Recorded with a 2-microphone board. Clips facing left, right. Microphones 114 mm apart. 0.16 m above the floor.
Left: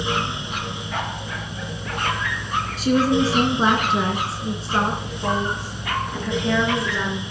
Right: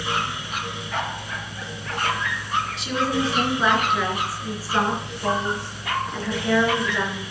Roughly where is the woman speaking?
Left.